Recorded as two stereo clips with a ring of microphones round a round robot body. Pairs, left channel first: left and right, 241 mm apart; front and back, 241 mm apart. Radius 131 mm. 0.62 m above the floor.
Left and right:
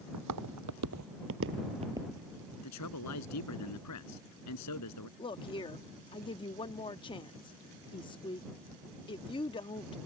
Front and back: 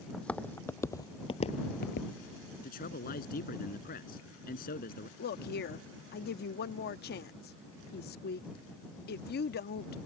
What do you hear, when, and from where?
0.1 s footsteps: 85° right; by 2.1 s 5° right
2.6 s a man speaking: 60° left
5.2 s a woman speaking: 25° left